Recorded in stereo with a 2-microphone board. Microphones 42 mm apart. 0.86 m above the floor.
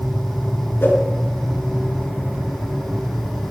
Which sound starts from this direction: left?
A whoosh, at 0.8 s.